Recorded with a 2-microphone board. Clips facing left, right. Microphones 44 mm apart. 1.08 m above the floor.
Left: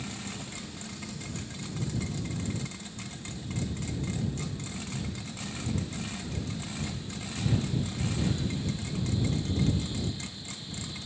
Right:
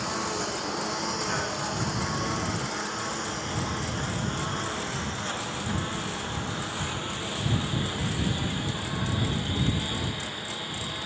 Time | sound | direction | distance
0.0 | a lawn mower | 85° right | ?